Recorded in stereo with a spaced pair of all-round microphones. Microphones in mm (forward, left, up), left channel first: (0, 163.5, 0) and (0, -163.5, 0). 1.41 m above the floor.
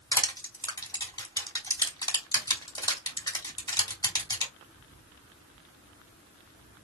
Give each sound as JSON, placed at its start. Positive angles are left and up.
{"t": 0.1, "sound": "crushing", "side_deg": 10, "distance_m": 1.4}